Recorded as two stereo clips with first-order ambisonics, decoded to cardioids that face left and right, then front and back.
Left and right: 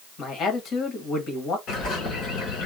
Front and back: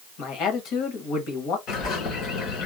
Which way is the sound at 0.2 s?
35° left.